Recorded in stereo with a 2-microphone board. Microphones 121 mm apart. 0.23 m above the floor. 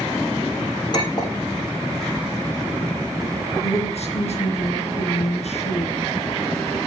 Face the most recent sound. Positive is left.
turn(degrees=65)  # may be behind; listen again after turning